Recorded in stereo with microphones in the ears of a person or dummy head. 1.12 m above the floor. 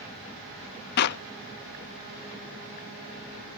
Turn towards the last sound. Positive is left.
turn(degrees=55)  # may be behind; listen again after turning